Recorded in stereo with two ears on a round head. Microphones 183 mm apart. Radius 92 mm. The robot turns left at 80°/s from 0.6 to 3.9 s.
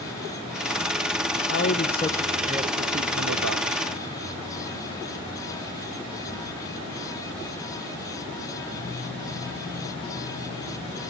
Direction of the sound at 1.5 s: 65° left.